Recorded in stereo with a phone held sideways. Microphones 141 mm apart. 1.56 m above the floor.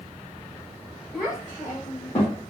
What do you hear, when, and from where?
1.1 s a child speaking: 5° left (ahead or behind), 1.5 m; by 2.5 s 35° left (ahead or behind), 1.6 m